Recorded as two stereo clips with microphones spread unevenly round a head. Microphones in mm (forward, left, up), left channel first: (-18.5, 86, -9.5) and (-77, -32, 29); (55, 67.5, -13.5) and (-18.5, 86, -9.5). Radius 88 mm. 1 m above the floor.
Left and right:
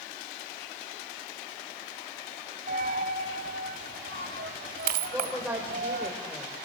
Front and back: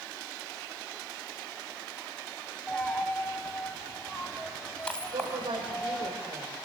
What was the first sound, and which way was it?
A dropped coin, 100° right.